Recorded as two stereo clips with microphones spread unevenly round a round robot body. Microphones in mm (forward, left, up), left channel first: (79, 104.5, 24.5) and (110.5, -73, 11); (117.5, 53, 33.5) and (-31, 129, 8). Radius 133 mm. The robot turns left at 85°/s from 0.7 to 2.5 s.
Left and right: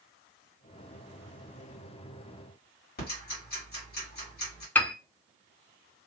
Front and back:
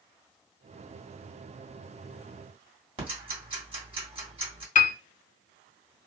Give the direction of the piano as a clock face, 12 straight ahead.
11 o'clock.